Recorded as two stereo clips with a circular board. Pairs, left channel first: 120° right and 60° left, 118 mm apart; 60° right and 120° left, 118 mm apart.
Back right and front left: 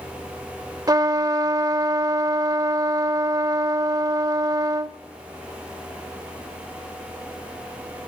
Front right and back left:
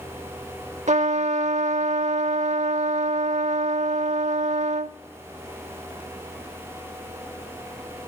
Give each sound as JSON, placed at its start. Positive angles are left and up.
{"t": 0.9, "sound": "a trumpet", "azimuth_deg": 115, "distance_m": 0.7}